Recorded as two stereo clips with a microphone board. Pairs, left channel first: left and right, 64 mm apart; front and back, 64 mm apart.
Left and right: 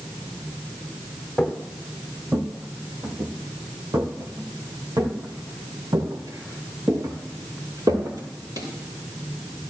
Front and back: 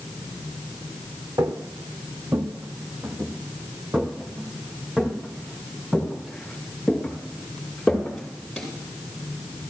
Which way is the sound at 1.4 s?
170° right.